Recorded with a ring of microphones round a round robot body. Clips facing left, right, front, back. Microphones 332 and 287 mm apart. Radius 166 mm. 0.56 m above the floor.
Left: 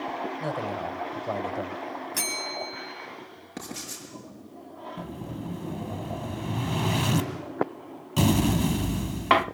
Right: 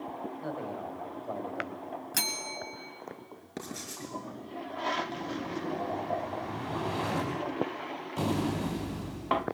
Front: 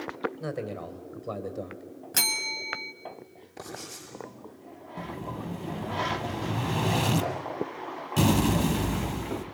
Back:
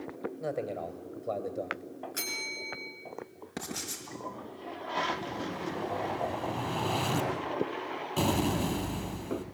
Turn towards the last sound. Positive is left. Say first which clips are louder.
# right 1 dB, even
turn(degrees=60)